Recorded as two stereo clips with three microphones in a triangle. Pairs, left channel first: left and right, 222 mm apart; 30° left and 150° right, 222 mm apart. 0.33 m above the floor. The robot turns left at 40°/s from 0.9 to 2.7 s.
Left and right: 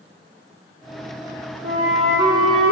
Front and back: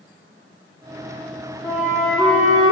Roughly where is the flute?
Ahead right.